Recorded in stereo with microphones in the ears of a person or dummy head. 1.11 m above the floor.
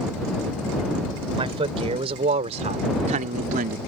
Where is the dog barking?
I don't hear a dog barking.